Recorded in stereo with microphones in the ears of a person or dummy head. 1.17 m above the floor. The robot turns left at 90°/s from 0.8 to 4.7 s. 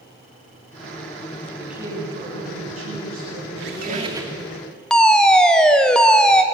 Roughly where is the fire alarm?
Centre.